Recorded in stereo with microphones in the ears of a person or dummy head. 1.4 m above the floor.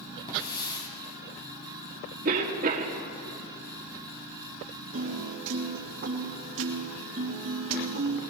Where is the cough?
55° right (ahead or behind), 2.0 m.